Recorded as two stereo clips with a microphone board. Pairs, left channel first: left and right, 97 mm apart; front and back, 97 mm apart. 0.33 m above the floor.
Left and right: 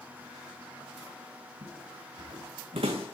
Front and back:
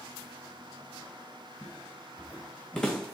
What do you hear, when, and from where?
1.6 s footsteps: 70° right, 1.9 m; by 3.2 s 90° right, 1.0 m